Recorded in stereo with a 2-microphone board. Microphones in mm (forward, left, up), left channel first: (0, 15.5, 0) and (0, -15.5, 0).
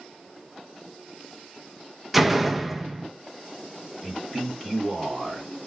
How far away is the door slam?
About 0.5 m.